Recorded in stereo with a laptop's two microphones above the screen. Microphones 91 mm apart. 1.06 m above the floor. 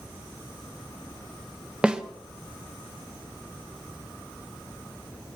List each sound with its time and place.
1.8 s a snare drum: 10° right (ahead or behind), 0.9 m